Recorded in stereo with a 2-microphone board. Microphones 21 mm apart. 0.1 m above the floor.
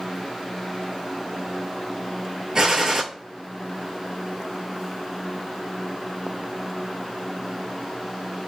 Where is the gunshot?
30° right (ahead or behind), 0.7 m.